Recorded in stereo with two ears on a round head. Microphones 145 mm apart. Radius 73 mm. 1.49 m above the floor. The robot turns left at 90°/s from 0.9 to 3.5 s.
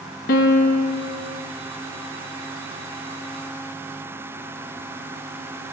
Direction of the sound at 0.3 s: 60° left (ahead or behind).